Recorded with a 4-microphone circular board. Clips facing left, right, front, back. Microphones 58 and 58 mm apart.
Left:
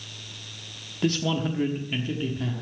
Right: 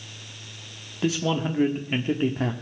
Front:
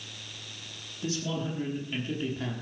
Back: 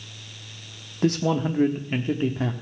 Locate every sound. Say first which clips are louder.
1.0 s a man speaking: right 1 dB, back 10 dB; 175° right, 1.1 m; by 2.5 s 125° right, 1.2 m